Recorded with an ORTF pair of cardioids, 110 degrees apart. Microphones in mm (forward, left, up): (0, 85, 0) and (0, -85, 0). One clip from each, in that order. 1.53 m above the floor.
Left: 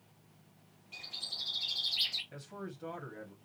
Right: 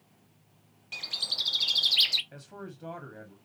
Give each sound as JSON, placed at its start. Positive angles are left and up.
{"t": 0.9, "sound": "a bird", "azimuth_deg": -65, "distance_m": 0.8}
{"t": 2.3, "sound": "a man speaking", "azimuth_deg": -10, "distance_m": 1.4}